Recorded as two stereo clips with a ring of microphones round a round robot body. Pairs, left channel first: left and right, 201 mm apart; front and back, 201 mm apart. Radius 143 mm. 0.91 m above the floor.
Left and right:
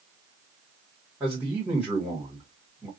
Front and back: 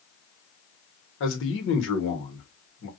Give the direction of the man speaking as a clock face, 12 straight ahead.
12 o'clock.